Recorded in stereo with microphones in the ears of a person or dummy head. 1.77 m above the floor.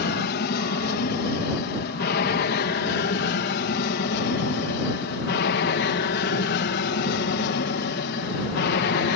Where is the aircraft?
55° left (ahead or behind).